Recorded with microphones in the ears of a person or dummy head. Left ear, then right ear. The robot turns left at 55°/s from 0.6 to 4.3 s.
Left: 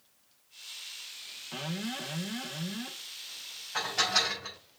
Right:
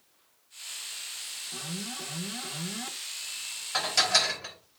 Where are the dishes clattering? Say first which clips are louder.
Right 3 dB; 55° right, 4 m; by 4.5 s 90° right, 4 m.